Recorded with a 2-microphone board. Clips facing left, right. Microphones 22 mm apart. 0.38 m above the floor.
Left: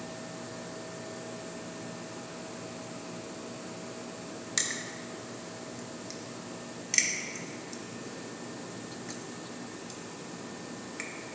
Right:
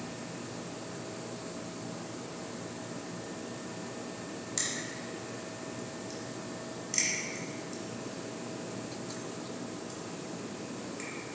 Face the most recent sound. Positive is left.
turn(degrees=35)  # may be behind; listen again after turning